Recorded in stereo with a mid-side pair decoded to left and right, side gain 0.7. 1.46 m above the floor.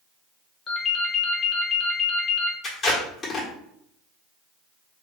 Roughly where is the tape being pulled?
Ahead left.